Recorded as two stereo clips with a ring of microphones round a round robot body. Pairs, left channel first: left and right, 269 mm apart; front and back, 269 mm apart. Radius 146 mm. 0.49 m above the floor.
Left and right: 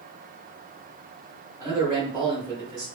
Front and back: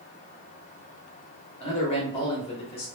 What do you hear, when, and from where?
1.6 s a man speaking: 35° right, 0.7 m